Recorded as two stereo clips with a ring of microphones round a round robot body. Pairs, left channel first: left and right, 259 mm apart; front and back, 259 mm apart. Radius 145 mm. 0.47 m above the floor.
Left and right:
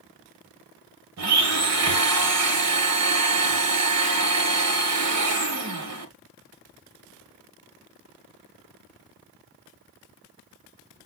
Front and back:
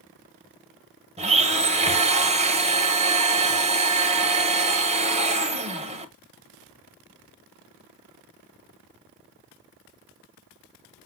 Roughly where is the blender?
Behind right.